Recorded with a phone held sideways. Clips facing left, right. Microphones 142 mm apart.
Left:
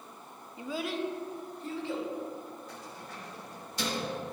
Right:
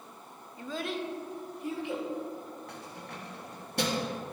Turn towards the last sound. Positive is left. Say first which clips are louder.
# right 1 dB
turn(degrees=-65)  # may be behind; listen again after turning